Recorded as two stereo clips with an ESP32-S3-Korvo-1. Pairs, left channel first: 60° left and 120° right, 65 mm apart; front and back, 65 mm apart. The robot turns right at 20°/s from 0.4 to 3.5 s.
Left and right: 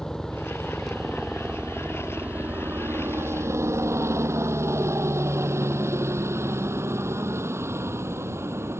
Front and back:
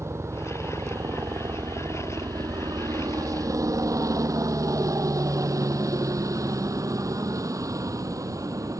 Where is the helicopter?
140° left; by 8.8 s 160° right.